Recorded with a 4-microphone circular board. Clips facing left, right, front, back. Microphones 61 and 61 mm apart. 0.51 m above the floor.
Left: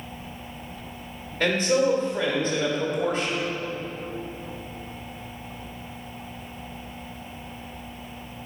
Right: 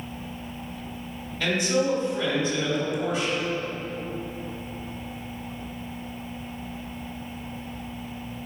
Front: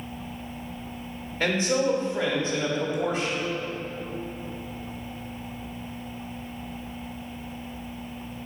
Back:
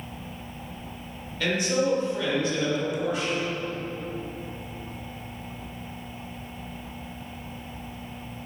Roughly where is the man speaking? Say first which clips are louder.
Left 3 dB, front 1 dB; ahead left.